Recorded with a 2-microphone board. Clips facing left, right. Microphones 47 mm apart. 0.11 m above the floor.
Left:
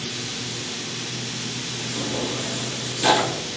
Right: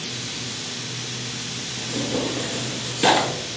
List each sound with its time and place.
1.8 s tearing paper: 30° right (ahead or behind), 0.9 m